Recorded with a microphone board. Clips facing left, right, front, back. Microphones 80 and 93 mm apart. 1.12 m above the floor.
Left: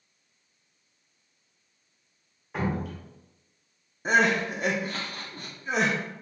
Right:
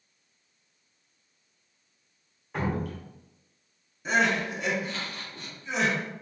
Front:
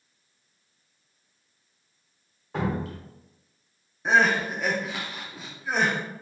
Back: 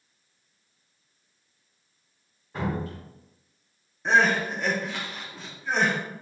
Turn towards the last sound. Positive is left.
turn(degrees=85)